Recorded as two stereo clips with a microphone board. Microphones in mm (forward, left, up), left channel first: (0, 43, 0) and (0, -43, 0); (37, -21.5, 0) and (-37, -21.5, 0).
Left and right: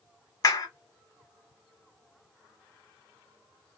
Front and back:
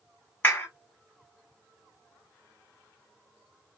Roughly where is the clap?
Ahead left.